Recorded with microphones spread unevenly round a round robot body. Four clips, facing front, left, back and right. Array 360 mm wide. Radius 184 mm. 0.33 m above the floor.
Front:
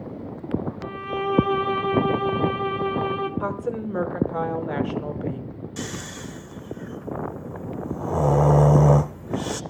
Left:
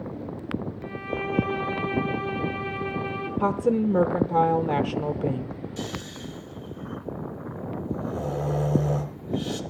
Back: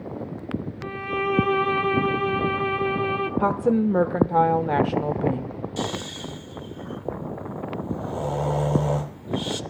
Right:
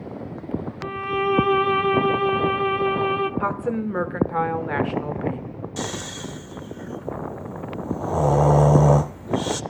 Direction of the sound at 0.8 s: 100° right.